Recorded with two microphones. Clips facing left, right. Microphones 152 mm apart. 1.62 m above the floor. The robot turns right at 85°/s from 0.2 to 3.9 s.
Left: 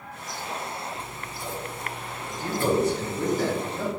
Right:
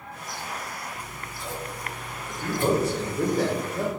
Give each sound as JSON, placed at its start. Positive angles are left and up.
{"t": 0.9, "sound": "scissors", "side_deg": 50, "distance_m": 1.0}
{"t": 2.3, "sound": "a man speaking", "azimuth_deg": 165, "distance_m": 1.5}